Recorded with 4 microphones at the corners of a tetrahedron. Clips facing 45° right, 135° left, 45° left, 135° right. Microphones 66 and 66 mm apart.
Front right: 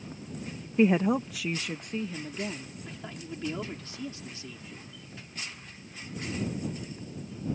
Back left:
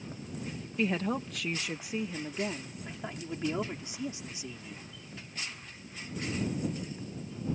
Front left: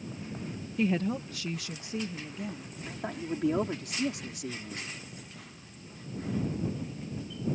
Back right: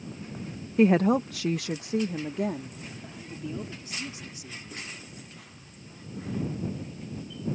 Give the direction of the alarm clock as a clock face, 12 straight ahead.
I don't hear an alarm clock.